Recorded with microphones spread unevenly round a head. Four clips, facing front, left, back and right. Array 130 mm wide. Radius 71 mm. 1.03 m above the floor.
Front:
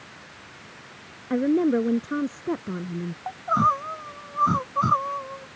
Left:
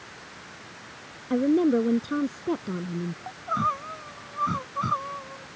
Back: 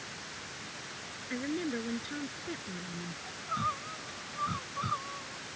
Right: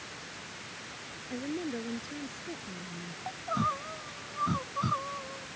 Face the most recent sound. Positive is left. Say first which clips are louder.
# left 4 dB, front 13 dB
turn(degrees=5)